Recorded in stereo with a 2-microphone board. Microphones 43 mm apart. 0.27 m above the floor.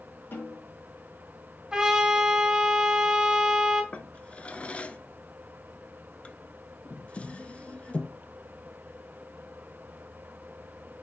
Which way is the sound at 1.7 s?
15° right (ahead or behind).